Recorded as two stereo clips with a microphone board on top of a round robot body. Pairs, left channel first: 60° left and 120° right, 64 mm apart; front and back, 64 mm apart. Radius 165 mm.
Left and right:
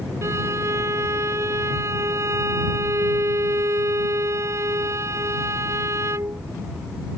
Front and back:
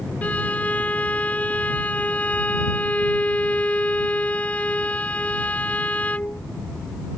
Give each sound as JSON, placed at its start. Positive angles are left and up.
{"t": 0.2, "sound": "a violin", "azimuth_deg": -70}